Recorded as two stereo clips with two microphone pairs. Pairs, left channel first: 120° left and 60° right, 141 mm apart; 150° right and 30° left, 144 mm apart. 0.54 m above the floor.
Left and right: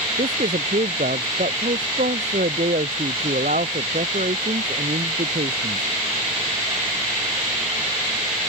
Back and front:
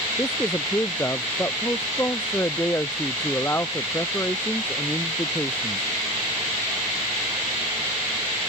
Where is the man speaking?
75° right.